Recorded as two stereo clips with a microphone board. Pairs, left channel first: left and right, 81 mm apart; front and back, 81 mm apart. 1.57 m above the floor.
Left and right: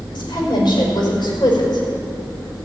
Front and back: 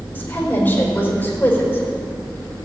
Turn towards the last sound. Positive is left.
turn(degrees=70)